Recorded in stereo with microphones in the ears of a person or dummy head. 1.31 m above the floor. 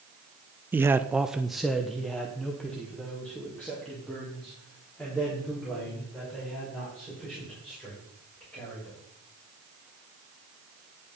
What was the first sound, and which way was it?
A man speaking, 10° right (ahead or behind).